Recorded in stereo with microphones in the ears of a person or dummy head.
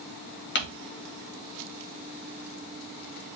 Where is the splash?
No splash in this recording.